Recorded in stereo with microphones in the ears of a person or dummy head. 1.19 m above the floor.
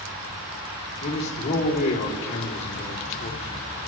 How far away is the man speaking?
About 2.5 m.